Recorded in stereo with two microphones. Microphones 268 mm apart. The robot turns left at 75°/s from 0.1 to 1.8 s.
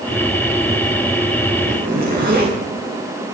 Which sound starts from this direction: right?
A zipper, at 1.7 s.